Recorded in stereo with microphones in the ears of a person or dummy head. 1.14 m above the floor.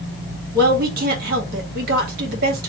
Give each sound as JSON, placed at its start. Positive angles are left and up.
{"t": 0.5, "sound": "a woman speaking", "side_deg": -55, "distance_m": 1.8}